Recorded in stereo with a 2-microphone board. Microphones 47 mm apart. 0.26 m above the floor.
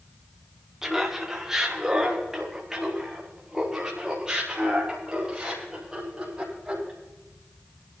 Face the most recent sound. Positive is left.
turn(degrees=-15)  # may be behind; listen again after turning